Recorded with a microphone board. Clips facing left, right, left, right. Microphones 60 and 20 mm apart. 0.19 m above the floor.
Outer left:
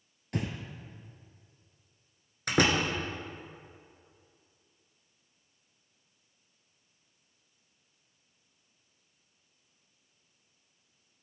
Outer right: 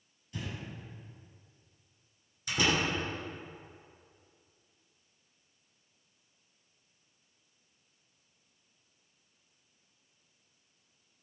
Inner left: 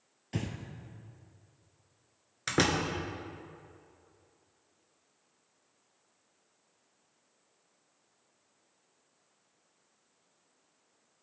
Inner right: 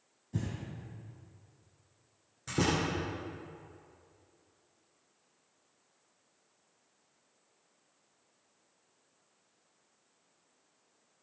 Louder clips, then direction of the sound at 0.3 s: Outer left 7 dB, inner left 1 dB; 65° left (ahead or behind).